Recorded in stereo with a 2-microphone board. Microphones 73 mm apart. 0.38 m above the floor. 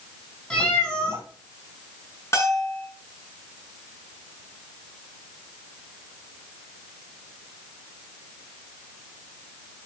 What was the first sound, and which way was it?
A cat meowing, 20° left (ahead or behind).